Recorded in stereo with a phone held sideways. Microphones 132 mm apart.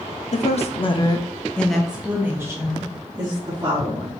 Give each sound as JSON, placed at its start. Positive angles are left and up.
{"t": 0.3, "sound": "a woman speaking", "side_deg": 60, "distance_m": 0.7}